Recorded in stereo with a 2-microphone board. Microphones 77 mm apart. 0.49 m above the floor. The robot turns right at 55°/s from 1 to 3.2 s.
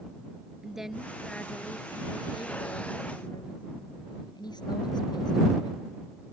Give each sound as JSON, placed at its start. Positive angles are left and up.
{"t": 0.6, "sound": "a woman speaking", "azimuth_deg": -5}